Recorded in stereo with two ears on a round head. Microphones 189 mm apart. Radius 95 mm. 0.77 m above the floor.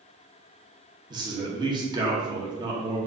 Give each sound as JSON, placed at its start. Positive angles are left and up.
{"t": 1.1, "sound": "a man speaking", "side_deg": -20, "distance_m": 0.8}